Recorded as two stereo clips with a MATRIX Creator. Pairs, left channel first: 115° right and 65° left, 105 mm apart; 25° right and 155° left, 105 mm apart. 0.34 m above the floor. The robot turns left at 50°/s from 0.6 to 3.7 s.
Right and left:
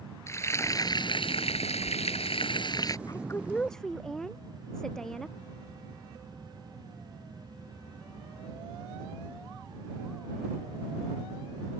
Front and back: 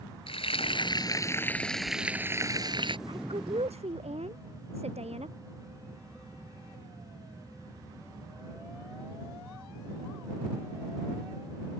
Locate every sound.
0.3 s frying: 50° right; by 3.0 s 170° right
3.1 s a woman speaking: 165° right; by 5.4 s 160° left